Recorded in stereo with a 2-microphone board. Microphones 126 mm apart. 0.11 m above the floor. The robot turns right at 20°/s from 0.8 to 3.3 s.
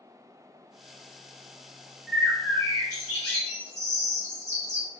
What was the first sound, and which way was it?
A bird, 5° left (ahead or behind).